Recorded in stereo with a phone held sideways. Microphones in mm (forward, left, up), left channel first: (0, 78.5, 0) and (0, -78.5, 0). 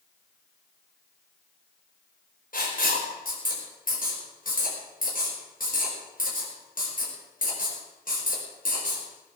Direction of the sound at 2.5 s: 60° left (ahead or behind).